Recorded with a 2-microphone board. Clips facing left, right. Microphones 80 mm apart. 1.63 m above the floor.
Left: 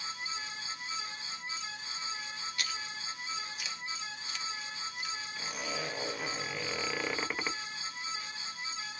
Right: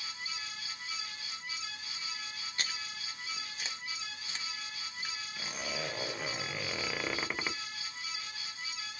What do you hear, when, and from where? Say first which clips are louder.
2.6 s chewing: right 1 dB; 35° right (ahead or behind), 0.7 m
5.4 s a zipper: even; centre (ahead or behind), 0.6 m